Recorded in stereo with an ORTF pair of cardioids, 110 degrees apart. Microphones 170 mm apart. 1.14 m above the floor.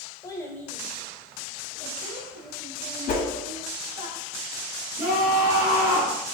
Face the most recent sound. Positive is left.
turn(degrees=-15)